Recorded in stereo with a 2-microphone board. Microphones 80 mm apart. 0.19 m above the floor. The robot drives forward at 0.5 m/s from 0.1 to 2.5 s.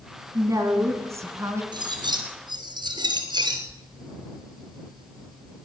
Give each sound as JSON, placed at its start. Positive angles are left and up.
{"t": 0.3, "sound": "a woman speaking", "side_deg": -40, "distance_m": 1.6}
{"t": 1.7, "sound": "cutlery clinking", "side_deg": -70, "distance_m": 2.5}